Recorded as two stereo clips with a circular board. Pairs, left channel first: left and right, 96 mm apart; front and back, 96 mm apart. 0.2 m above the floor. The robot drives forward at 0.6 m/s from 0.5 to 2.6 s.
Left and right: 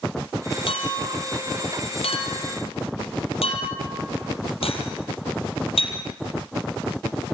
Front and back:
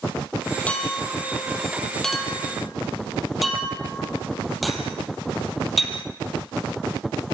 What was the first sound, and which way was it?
A clink, 75° left.